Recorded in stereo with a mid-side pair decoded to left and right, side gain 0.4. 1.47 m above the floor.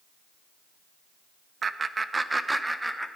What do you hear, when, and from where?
1.6 s laughter: 45° right, 1.1 m; by 3.1 s 10° right, 2 m